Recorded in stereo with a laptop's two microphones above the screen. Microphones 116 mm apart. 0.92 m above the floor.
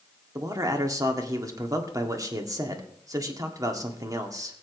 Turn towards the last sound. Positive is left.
turn(degrees=-30)  # may be behind; listen again after turning